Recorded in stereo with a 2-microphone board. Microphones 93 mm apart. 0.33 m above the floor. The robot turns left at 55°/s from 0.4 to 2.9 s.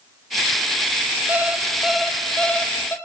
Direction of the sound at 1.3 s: 140° right.